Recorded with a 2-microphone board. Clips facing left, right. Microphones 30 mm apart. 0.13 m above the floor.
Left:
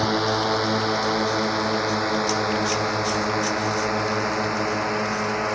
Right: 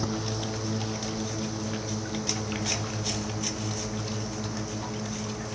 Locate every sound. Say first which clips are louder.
0.0 s a drone: left 10 dB; 70° left (ahead or behind)